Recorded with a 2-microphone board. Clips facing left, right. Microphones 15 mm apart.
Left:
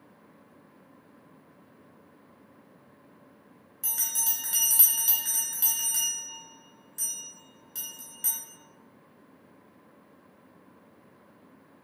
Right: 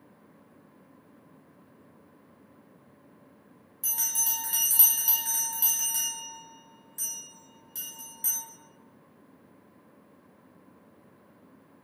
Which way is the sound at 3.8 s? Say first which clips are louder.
Right 2 dB; 5° left (ahead or behind).